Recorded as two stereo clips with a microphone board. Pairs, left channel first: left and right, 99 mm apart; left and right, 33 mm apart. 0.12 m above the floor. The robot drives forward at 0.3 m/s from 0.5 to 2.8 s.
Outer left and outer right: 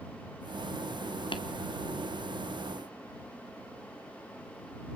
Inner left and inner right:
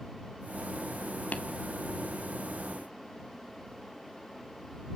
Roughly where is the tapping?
Left.